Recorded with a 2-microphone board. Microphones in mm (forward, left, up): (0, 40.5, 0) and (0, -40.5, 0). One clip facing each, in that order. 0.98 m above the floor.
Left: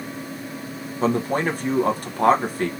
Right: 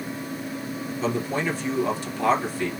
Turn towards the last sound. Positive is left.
turn(degrees=45)  # may be behind; listen again after turning